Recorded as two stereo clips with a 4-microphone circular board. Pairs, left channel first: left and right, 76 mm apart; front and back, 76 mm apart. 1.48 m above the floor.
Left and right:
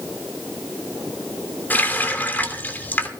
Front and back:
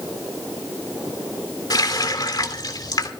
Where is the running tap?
25° left, 3 m.